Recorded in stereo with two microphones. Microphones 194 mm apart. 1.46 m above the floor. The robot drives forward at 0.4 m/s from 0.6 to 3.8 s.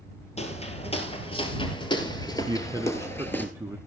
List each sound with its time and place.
0.4 s footsteps: 35° left (ahead or behind), 1.8 m; by 3.5 s 10° left (ahead or behind), 1.4 m
2.5 s a man speaking: 20° right (ahead or behind), 0.6 m; by 3.8 s 10° right (ahead or behind), 1.0 m